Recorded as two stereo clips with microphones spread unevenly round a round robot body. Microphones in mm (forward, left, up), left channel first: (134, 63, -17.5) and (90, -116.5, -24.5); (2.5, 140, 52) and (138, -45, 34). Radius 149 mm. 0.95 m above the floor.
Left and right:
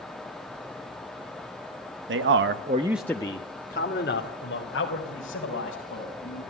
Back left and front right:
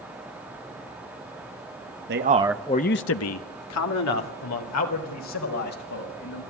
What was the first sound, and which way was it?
A man speaking, 95° right.